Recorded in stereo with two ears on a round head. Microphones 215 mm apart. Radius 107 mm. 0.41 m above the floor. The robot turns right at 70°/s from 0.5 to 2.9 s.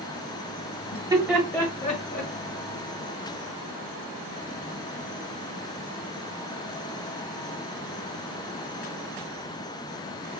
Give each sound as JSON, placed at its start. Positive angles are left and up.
{"t": 0.9, "sound": "laughter", "side_deg": -25, "distance_m": 1.5}